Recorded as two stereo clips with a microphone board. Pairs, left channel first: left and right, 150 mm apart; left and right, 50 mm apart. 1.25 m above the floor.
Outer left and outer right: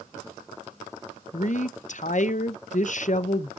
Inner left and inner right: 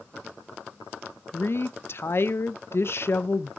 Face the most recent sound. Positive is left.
turn(degrees=55)  # may be behind; listen again after turning